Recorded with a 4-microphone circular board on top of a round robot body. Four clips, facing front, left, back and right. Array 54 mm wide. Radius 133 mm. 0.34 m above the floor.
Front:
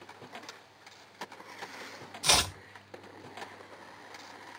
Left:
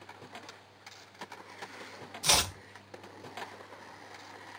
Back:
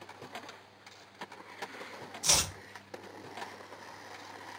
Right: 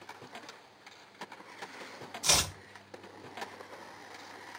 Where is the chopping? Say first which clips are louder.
Left 2 dB, front 5 dB; 20° left, 1.1 m.